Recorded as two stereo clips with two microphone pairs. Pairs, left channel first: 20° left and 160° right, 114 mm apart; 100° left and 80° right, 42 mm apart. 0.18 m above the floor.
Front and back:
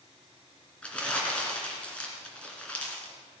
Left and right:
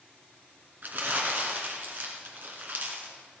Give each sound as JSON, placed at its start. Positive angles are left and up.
{"t": 0.8, "sound": "crumpling", "azimuth_deg": -60, "distance_m": 2.5}